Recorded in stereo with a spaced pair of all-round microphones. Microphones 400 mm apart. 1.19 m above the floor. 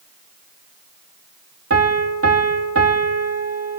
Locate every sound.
1.7 s a piano: 35° right (ahead or behind), 2.5 m